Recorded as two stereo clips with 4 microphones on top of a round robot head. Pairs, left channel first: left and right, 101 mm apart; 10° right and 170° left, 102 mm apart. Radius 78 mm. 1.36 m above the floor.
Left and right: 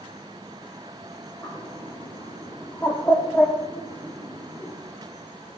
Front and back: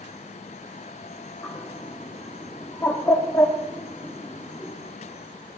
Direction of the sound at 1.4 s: 30° left.